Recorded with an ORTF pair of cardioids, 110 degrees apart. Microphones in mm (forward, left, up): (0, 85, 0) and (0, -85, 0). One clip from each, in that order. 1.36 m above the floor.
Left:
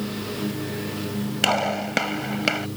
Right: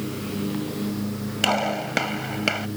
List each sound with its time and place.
1.4 s a gunshot: 5° left